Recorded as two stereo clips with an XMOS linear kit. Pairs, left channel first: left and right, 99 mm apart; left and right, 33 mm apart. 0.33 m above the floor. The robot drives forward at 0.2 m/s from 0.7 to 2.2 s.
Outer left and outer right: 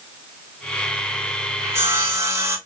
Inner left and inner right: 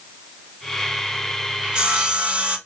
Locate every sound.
1.6 s sawing: 30° right (ahead or behind), 0.6 m